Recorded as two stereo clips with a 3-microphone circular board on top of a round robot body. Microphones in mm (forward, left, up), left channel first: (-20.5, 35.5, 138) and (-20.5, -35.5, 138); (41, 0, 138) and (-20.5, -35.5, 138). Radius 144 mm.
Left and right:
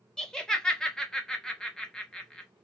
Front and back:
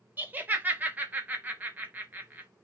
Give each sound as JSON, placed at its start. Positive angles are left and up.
{"t": 0.2, "sound": "laughter", "azimuth_deg": 165, "distance_m": 1.2}